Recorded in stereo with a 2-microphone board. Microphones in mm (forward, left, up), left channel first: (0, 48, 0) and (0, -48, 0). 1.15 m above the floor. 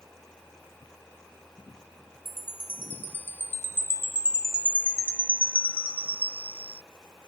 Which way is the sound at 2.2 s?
20° left (ahead or behind).